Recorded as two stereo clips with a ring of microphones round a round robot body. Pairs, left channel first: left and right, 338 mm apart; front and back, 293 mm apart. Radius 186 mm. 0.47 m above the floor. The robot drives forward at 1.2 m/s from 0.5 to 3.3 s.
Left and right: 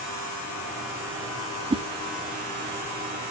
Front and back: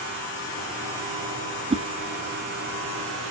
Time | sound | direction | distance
1.7 | a whoosh | 140° right | 1.0 m